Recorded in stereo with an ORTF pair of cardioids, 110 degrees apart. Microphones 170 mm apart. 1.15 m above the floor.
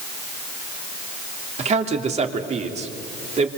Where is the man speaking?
40° right, 3 m.